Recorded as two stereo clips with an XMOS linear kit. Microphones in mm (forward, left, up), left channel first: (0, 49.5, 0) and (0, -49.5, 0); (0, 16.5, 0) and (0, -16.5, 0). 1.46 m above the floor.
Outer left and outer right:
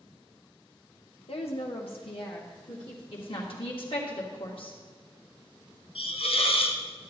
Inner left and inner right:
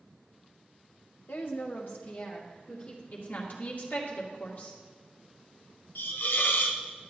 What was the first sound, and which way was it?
A woman speaking, 80° left.